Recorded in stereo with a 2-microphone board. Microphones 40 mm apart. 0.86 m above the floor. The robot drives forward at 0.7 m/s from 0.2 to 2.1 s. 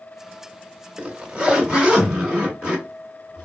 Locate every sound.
1.0 s a zipper: 30° right (ahead or behind), 1.4 m; by 3.5 s 20° right (ahead or behind), 2 m